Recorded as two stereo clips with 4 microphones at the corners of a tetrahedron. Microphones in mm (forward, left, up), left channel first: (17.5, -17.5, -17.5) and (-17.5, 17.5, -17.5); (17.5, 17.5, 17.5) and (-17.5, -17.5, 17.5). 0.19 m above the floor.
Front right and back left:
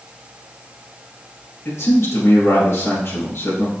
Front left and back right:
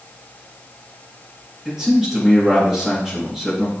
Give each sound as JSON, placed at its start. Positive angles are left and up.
{"t": 1.6, "sound": "a man speaking", "azimuth_deg": -50, "distance_m": 3.5}